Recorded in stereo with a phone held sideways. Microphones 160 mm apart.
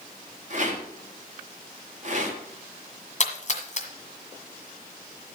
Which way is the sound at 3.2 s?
50° left (ahead or behind).